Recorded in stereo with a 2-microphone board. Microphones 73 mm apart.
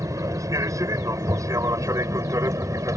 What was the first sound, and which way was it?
An aircraft, 45° right (ahead or behind).